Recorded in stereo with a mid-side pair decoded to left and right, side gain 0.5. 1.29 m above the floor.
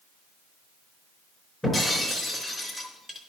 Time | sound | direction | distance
1.6 | breaking glass | 10° left | 4 m